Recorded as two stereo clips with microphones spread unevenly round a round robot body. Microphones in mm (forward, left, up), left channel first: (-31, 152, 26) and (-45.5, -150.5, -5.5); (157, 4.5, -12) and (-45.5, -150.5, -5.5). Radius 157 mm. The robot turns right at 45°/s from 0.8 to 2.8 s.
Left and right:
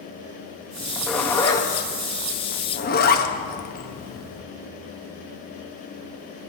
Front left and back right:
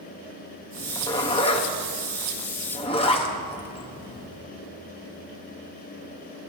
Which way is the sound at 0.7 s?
25° right.